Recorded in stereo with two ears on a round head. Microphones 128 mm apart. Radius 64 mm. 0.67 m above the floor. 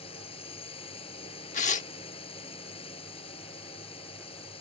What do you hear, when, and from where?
0.0 s a drone: 40° left (ahead or behind)
1.5 s tearing paper: 50° left (ahead or behind)